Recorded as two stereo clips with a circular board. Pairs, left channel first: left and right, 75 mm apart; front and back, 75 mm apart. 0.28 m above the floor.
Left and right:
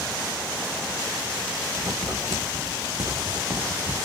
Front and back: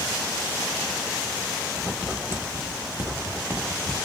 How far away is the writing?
About 1.1 m.